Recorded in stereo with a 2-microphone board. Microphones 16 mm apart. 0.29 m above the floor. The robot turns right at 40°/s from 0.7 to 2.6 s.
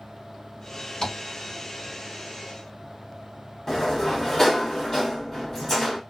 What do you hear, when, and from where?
1.0 s tapping: 60° left (ahead or behind), 3 m
3.7 s a sliding door: 25° left (ahead or behind), 1.2 m